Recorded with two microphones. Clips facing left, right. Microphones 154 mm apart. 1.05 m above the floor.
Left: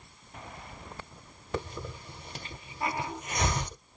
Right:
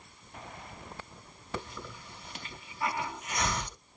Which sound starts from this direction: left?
A hiss, at 1.5 s.